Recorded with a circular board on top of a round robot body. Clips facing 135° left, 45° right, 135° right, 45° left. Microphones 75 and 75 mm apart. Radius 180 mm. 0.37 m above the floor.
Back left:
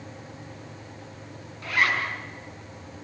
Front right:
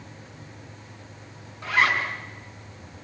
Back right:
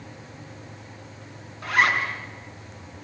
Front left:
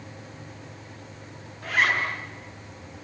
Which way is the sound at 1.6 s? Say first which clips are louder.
Front right 2 dB, back right 2 dB; 110° right.